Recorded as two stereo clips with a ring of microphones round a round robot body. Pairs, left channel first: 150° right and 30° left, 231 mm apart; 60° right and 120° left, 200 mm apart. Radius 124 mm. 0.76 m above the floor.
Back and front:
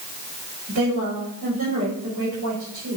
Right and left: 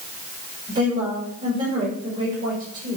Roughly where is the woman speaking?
Ahead left.